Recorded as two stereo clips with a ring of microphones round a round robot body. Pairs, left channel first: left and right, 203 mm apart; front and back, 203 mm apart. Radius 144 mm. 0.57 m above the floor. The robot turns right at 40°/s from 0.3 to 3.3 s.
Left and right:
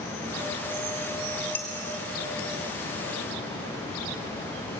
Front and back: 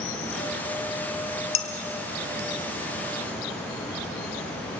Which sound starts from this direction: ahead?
Dishes clattering, at 1.6 s.